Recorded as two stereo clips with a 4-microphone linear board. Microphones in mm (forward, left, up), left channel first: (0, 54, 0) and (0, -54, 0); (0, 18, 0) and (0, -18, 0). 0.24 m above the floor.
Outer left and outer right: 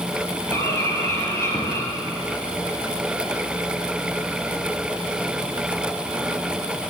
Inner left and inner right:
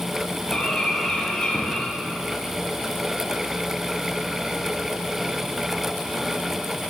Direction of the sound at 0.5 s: 25° left (ahead or behind).